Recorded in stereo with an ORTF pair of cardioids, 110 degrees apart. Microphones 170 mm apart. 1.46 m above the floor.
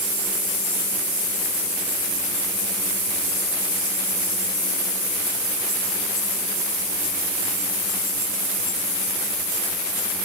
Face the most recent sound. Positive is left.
No sound to turn to.